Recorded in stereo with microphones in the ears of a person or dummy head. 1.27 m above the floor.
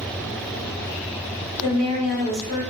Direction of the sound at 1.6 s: 85° right.